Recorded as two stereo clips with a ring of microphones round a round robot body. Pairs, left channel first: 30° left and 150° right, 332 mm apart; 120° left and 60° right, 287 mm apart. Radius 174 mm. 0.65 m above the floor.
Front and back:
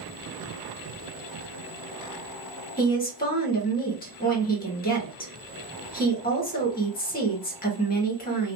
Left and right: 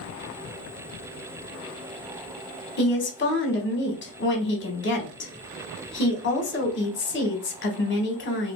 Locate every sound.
2.8 s a woman speaking: 85° left, 1.4 m